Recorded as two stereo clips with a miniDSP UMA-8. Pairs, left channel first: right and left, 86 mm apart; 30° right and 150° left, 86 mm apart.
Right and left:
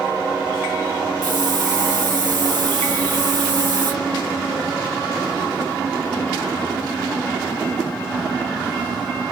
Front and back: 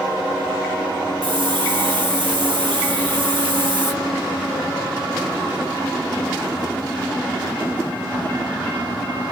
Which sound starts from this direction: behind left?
A hiss, at 1.2 s.